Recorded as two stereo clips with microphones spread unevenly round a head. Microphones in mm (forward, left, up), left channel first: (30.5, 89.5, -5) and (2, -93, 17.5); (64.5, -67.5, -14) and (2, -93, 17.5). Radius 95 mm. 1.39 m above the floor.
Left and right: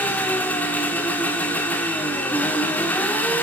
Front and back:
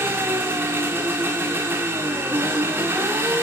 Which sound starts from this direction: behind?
An engine running, at 0.0 s.